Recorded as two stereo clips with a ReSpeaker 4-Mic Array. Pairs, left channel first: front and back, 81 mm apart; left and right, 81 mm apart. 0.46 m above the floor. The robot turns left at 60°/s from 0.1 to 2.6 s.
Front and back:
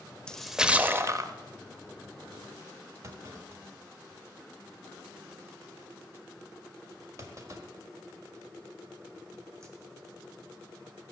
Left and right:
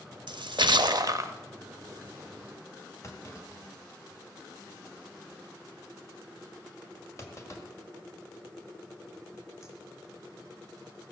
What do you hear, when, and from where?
0.3 s a splash: 80° right, 0.6 m; by 1.3 s 140° right, 0.6 m
3.0 s a clunk: 135° left, 1.5 m